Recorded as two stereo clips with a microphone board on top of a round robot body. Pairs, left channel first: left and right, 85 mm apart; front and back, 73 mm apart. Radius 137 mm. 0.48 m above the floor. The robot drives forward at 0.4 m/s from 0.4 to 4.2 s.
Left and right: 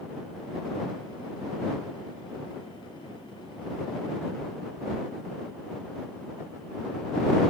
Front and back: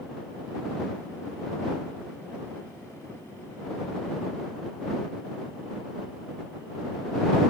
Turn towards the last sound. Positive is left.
No sound to turn to.